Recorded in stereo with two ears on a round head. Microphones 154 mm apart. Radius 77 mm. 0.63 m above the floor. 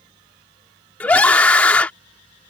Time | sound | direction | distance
1.0 | a scream | 10° left (ahead or behind) | ?